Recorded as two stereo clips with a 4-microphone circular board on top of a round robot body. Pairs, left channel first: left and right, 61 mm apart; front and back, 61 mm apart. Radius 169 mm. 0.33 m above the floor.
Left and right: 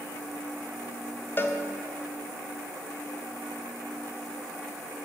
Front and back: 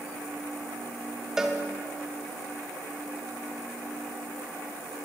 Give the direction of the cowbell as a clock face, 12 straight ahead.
9 o'clock.